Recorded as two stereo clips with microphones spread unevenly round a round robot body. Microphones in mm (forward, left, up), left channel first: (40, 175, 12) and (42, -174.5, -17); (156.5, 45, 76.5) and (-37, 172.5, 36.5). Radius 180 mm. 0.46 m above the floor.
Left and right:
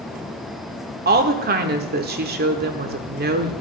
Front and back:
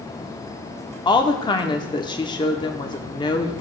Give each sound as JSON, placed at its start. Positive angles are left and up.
{"t": 1.1, "sound": "a woman speaking", "azimuth_deg": -105, "distance_m": 0.8}